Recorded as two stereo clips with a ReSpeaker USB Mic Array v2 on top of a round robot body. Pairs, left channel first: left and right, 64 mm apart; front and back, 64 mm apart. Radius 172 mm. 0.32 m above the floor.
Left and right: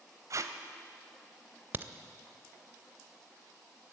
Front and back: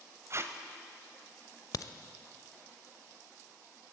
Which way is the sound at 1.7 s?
30° right.